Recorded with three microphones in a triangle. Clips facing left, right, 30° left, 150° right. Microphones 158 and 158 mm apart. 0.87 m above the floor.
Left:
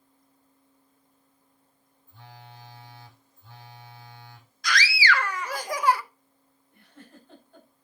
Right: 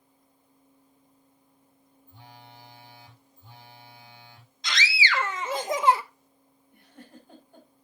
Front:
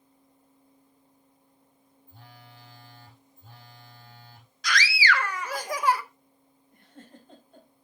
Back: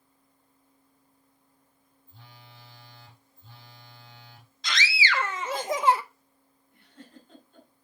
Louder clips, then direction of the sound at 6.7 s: Right 1 dB, even; 15° right.